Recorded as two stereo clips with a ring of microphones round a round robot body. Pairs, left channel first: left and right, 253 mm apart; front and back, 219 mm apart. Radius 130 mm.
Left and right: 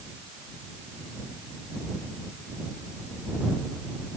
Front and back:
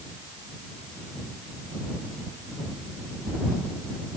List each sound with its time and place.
Only background noise.